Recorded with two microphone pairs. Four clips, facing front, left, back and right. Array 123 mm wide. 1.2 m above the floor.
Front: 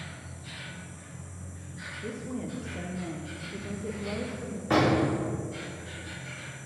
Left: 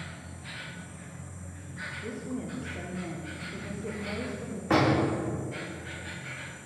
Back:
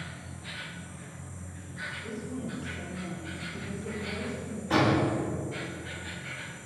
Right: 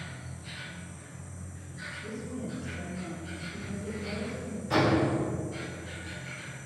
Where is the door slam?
65° left, 2.5 m.